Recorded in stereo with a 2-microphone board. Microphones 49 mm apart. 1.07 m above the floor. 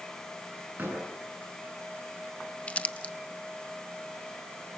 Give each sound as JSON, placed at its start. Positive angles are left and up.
{"t": 0.8, "sound": "a door slam", "side_deg": -40, "distance_m": 10.0}
{"t": 2.7, "sound": "crumpling", "side_deg": 25, "distance_m": 0.6}